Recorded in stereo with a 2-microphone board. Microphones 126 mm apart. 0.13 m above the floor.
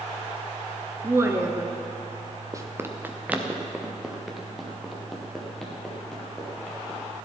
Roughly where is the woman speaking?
Right.